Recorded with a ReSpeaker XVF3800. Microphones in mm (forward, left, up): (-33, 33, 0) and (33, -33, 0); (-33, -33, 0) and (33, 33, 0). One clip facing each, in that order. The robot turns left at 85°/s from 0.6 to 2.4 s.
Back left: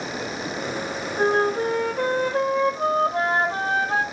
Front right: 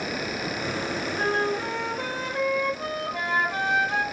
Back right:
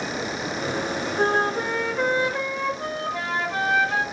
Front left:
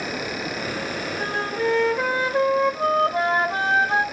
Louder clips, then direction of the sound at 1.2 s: Back left 7 dB, back right 4 dB; 165° right.